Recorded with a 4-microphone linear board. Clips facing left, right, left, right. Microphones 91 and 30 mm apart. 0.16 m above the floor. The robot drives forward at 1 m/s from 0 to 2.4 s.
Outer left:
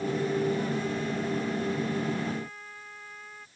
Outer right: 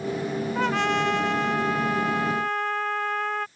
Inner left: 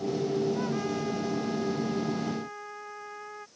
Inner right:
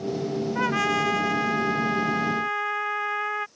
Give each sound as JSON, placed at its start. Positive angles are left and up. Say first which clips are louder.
{"t": 0.6, "sound": "a trumpet", "louder": "outer right 6 dB, inner right 7 dB", "side_deg": -80}